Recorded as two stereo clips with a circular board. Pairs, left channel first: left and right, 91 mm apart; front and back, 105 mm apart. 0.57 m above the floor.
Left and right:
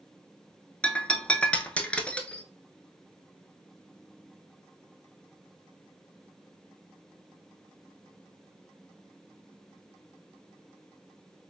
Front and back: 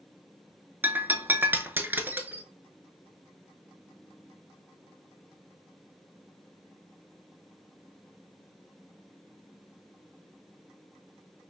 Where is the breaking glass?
145° left, 0.5 m.